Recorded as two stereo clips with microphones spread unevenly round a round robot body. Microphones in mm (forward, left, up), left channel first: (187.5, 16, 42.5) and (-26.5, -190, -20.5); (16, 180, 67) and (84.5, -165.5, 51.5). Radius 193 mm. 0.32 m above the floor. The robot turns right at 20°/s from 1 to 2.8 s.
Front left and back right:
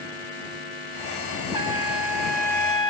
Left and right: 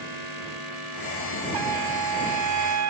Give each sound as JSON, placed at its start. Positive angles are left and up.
{"t": 1.5, "sound": "a trumpet", "azimuth_deg": -60}